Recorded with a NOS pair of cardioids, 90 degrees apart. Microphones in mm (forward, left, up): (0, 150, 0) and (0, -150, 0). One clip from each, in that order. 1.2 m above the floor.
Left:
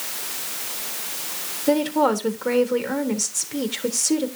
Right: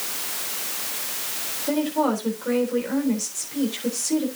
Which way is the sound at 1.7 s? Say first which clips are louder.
Left 4 dB; 55° left.